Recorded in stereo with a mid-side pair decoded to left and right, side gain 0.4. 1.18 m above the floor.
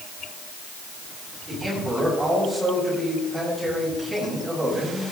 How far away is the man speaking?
About 8 m.